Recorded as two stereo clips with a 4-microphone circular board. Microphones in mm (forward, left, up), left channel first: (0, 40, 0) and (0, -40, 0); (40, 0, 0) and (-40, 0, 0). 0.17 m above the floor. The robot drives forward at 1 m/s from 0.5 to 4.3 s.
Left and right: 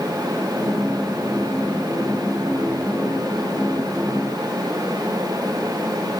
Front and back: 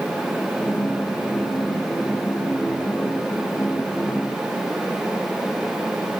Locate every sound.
Only background noise.